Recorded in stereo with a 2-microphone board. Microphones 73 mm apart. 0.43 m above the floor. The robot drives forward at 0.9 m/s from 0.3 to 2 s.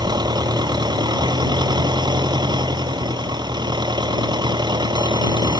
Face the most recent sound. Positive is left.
turn(degrees=-75)  # may be behind; listen again after turning